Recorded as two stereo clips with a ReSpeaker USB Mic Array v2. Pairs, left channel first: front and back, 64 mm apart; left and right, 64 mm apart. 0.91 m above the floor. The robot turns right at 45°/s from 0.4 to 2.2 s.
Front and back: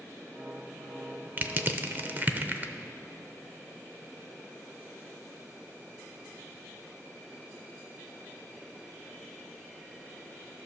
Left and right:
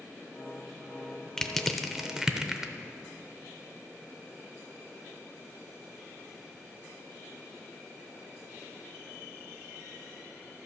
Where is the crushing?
165° left, 0.6 m; by 2.7 s 160° right, 0.6 m.